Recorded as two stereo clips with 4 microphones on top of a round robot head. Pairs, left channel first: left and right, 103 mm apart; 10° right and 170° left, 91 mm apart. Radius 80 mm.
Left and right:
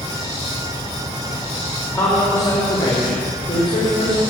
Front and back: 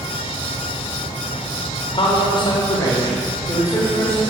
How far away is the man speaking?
About 3 m.